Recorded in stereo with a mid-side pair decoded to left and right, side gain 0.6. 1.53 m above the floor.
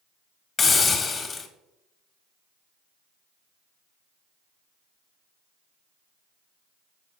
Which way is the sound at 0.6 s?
35° left.